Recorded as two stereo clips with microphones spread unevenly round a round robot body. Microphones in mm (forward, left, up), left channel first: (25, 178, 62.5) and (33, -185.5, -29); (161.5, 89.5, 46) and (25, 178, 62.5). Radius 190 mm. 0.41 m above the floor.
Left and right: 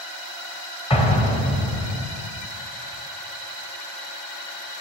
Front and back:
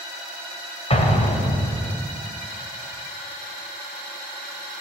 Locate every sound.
0.9 s an explosion: 10° left, 2.5 m